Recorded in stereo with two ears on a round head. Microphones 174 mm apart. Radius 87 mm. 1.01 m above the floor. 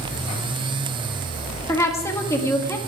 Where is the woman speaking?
15° left (ahead or behind), 1.8 m.